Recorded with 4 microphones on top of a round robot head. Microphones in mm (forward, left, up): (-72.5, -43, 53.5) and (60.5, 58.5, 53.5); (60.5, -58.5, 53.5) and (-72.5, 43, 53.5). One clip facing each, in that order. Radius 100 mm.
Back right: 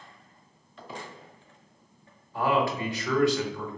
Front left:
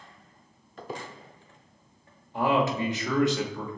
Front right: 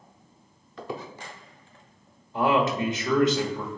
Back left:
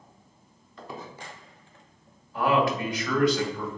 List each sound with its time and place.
0.8 s a squeak: 10° right, 0.6 m
2.3 s a man speaking: 5° right, 1.1 m